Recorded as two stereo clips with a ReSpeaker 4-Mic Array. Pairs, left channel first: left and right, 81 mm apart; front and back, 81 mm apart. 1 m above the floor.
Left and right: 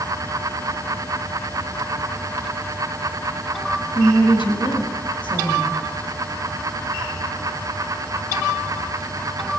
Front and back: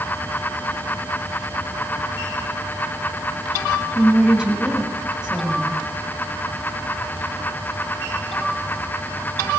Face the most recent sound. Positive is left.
turn(degrees=100)